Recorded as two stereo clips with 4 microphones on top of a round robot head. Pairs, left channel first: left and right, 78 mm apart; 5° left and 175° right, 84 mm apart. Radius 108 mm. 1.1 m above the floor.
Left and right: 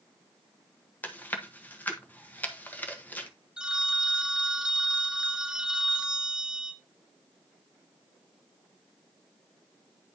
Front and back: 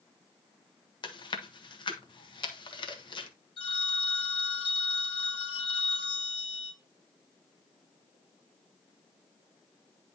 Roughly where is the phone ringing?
Ahead.